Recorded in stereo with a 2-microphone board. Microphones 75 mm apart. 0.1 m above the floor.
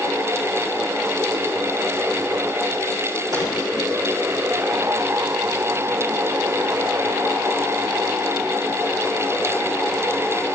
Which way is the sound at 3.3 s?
55° right (ahead or behind).